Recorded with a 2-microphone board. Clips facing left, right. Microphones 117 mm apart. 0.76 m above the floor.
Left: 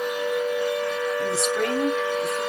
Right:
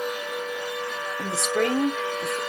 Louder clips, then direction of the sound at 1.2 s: Right 3 dB; 60° right (ahead or behind).